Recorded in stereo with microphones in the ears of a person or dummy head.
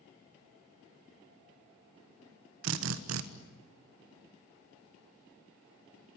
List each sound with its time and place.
2.6 s a drill: 85° right, 1.4 m